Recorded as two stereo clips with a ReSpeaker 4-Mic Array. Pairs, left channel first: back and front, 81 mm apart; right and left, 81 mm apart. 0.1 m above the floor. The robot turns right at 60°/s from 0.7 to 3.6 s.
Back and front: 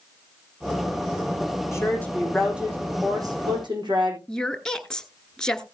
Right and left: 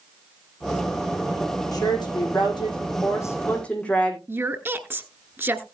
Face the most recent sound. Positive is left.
turn(degrees=110)